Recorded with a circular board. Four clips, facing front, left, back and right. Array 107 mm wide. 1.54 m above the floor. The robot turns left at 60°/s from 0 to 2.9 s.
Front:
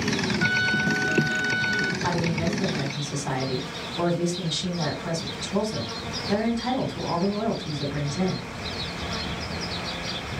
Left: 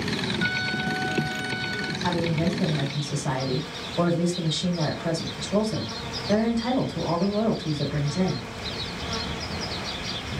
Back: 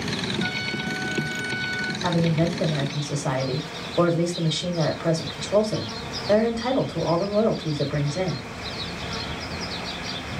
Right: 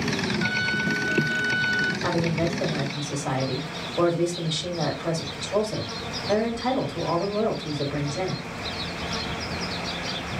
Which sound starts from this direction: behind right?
A woman speaking, at 2.0 s.